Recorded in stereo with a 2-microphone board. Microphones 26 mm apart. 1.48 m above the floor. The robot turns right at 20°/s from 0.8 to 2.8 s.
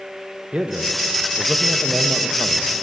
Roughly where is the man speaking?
Behind right.